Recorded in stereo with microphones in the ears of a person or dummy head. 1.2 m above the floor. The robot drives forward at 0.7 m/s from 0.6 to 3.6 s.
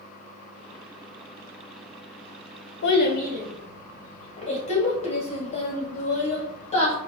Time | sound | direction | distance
2.8 | a child speaking | 60° left (ahead or behind) | 0.6 m